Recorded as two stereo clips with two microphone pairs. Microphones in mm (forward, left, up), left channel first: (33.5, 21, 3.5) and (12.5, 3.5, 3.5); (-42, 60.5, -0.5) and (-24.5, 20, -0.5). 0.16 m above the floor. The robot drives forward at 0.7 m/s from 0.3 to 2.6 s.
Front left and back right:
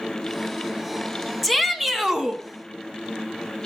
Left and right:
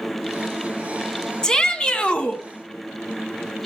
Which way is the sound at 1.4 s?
125° left.